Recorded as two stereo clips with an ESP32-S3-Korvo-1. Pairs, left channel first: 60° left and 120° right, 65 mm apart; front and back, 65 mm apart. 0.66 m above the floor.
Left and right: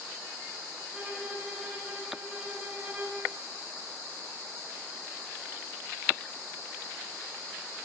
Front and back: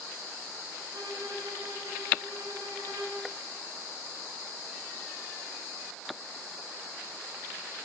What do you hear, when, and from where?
0.9 s a violin: 155° left, 7 m